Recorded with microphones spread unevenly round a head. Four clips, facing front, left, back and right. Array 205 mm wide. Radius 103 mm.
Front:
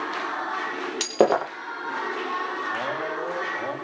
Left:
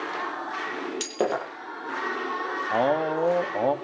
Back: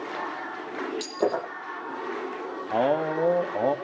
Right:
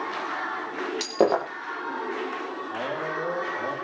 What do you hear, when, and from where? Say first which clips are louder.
1.0 s breaking glass: right 6 dB, front 8 dB; 20° right, 8.5 m
2.7 s a man speaking: left 9 dB, back 5 dB; 135° left, 2.5 m